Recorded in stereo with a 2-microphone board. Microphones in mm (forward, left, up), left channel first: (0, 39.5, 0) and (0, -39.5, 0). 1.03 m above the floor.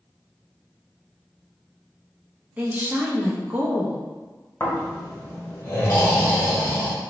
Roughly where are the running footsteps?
I don't hear running footsteps.